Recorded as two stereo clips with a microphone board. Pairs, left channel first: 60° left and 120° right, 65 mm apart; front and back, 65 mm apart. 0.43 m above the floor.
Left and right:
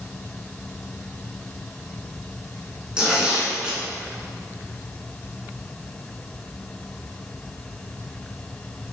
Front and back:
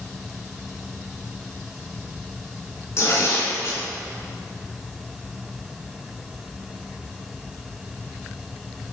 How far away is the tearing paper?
About 2.5 m.